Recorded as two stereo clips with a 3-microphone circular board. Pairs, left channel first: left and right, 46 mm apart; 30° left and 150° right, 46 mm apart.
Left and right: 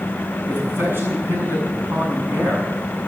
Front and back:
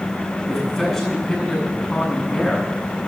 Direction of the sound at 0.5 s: 55° right.